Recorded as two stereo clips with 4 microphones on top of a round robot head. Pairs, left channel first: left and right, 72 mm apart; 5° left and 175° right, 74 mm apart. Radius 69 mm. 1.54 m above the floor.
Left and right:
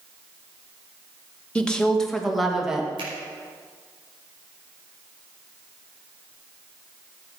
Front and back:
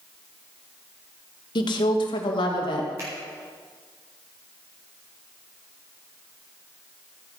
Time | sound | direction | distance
1.6 | a woman speaking | 15° left | 2 m
3.0 | a finger snap | 110° right | 5 m